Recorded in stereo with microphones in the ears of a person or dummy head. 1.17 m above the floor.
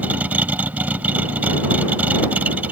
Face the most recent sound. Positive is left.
turn(degrees=-10)  # may be behind; listen again after turning